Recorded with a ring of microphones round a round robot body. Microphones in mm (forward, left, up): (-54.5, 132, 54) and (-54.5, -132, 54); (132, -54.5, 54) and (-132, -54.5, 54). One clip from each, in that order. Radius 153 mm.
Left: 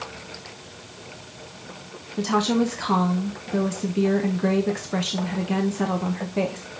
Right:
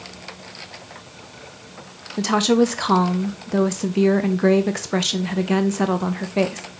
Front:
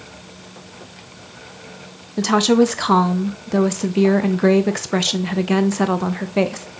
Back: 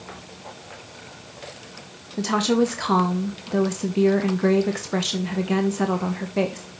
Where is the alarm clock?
No alarm clock in this recording.